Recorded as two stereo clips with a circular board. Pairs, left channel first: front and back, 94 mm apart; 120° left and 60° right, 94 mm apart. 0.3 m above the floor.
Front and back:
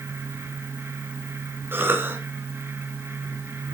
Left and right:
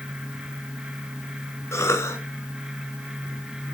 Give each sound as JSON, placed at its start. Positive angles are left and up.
{"t": 1.7, "sound": "a cough", "azimuth_deg": 140, "distance_m": 1.6}